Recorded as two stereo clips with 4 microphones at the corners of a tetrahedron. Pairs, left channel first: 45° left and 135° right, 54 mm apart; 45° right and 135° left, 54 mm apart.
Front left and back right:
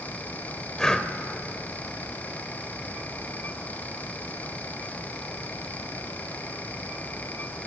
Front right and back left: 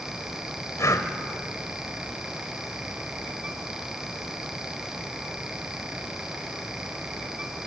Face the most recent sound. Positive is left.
turn(degrees=-35)